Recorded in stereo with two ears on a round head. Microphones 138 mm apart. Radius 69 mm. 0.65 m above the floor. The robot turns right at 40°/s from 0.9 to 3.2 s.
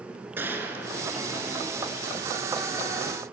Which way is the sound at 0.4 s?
15° right.